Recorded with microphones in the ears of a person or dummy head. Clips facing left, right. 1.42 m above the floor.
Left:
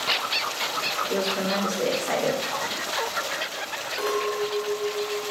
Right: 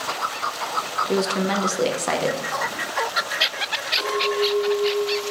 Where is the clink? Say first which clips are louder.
Right 3 dB; 25° left (ahead or behind), 2.5 m.